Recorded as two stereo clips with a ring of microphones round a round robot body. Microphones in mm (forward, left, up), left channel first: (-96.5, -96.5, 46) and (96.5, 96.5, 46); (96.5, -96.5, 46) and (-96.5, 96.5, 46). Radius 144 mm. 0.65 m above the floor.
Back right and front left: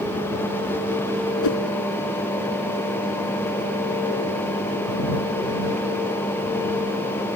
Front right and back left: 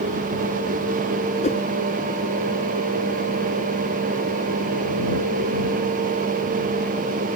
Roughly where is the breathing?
No breathing in this recording.